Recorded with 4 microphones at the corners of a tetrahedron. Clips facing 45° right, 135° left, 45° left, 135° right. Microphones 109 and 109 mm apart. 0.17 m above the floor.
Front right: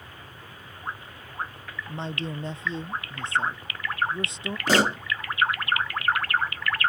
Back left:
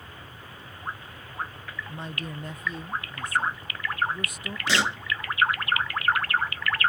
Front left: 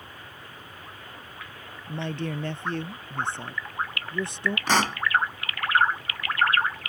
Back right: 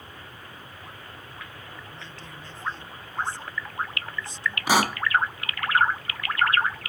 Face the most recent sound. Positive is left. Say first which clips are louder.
# front right 5 dB, back right 2 dB
turn(degrees=-60)